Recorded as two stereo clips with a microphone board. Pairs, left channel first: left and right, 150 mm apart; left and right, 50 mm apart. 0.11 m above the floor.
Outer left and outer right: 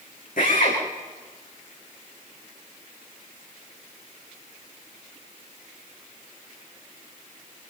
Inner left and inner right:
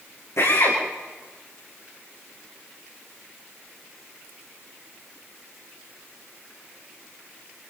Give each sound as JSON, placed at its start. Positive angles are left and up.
{"t": 0.4, "sound": "a drill", "side_deg": 75, "distance_m": 9.0}